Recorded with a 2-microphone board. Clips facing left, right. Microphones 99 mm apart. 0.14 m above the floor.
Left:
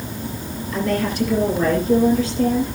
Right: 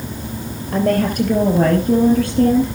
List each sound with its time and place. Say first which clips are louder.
0.7 s a woman speaking: right 5 dB; 55° right (ahead or behind), 3 m; by 2.7 s 60° right (ahead or behind), 4 m